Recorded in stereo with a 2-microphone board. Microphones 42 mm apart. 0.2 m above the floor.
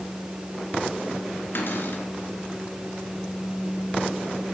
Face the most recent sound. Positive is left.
turn(degrees=60)  # may be behind; listen again after turning